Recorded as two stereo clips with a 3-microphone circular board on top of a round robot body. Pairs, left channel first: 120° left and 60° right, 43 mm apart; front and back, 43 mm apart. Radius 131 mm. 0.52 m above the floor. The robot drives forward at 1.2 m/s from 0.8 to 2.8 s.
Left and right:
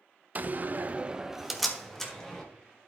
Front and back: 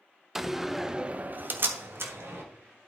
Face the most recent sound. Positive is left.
turn(degrees=-165)